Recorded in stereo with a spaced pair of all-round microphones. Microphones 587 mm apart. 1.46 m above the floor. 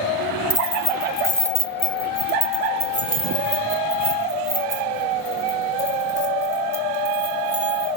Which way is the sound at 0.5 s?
50° left (ahead or behind).